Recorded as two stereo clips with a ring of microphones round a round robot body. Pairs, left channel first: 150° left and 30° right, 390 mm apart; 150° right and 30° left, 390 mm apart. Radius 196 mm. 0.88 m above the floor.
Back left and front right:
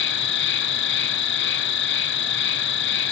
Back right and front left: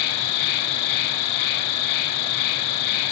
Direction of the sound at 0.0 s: 150° right.